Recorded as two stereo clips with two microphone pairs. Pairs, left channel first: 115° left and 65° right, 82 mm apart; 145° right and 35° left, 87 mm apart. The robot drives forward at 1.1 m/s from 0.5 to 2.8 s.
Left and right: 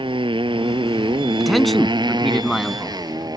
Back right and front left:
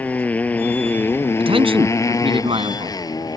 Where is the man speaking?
25° left; by 3.0 s 30° left.